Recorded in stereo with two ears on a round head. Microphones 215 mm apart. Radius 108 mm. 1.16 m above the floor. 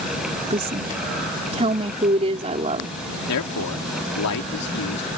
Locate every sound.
0.5 s a woman speaking: 25° right (ahead or behind)
3.3 s a man speaking: 80° left